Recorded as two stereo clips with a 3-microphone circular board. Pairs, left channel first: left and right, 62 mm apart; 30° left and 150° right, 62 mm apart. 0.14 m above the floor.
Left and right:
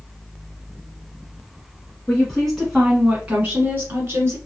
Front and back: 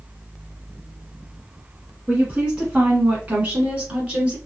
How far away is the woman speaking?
About 1.2 m.